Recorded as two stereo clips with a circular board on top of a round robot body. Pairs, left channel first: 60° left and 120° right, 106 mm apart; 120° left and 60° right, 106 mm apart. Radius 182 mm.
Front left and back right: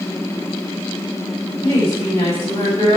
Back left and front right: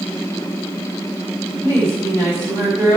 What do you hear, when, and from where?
1.6 s a woman speaking: straight ahead, 4 m